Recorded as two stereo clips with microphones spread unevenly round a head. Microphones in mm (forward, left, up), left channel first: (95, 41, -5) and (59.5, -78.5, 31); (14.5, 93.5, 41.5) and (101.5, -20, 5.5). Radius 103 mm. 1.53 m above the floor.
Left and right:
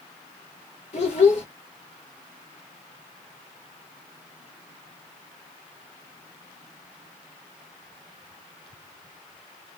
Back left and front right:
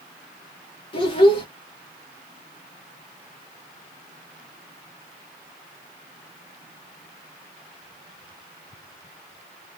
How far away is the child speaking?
About 0.8 m.